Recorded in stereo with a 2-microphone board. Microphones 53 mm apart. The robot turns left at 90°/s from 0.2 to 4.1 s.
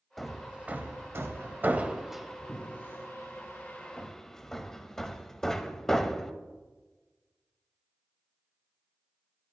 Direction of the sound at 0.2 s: Centre (ahead or behind).